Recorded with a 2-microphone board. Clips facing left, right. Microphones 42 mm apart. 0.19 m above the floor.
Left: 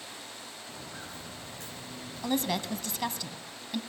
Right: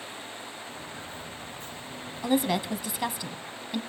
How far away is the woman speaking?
About 1.0 m.